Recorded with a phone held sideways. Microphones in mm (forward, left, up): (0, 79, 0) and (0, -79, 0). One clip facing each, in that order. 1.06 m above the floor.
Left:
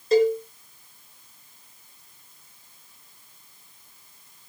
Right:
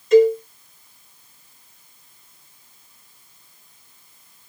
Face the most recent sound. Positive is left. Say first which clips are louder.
# right 6 dB
turn(degrees=35)  # may be behind; listen again after turning